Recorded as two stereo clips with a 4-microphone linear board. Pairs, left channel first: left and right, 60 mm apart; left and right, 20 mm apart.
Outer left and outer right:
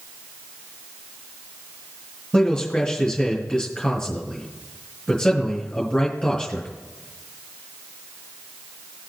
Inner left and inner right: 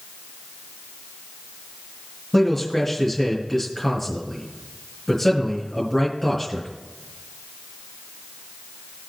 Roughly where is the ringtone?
I don't hear a ringtone.